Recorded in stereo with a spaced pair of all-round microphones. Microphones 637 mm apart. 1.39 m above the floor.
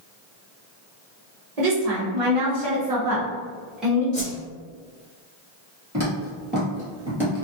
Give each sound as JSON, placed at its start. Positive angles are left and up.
{"t": 1.6, "sound": "a woman speaking", "side_deg": -75, "distance_m": 1.0}
{"t": 4.1, "sound": "a whoosh", "side_deg": 45, "distance_m": 1.1}
{"t": 5.9, "sound": "footsteps", "side_deg": -25, "distance_m": 1.6}